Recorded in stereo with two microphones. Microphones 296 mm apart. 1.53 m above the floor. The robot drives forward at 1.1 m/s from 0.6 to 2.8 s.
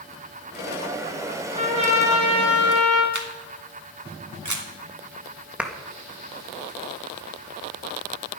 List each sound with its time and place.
1.6 s a trumpet: 20° right (ahead or behind), 4 m; by 3.0 s 15° right (ahead or behind), 5.5 m
3.1 s a camera shutter: 70° right (ahead or behind), 2.0 m
5.6 s a clap: 5° right (ahead or behind), 1.8 m